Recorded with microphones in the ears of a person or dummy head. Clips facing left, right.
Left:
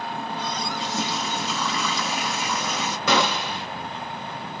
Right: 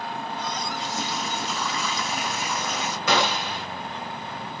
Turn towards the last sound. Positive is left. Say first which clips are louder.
# left 1 dB
turn(degrees=75)  # may be behind; listen again after turning